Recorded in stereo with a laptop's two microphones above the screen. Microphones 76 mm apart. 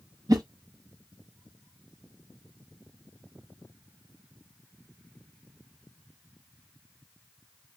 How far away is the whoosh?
About 0.6 m.